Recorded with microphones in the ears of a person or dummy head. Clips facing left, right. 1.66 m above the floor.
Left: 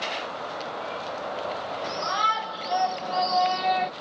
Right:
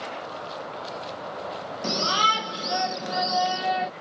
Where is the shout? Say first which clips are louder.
Right 5 dB; 50° right (ahead or behind); by 3.9 s 5° right (ahead or behind).